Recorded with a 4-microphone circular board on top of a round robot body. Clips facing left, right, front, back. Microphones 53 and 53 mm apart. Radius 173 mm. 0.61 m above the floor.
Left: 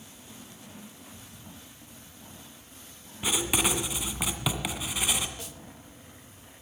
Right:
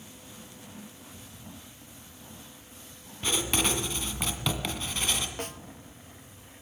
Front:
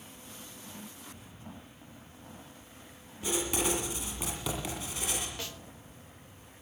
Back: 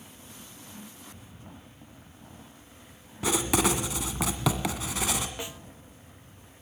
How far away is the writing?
About 1.8 m.